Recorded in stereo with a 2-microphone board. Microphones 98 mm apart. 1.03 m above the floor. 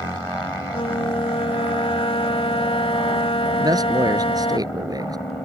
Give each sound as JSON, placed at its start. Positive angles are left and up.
{"t": 0.7, "sound": "a flute", "side_deg": 65}
{"t": 3.6, "sound": "a man speaking", "side_deg": -40}